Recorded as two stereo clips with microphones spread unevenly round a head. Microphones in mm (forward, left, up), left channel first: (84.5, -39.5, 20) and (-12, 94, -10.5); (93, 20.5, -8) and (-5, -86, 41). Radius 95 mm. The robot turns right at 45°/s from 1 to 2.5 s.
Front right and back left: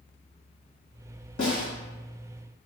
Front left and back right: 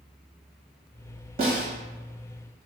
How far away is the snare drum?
About 1.2 m.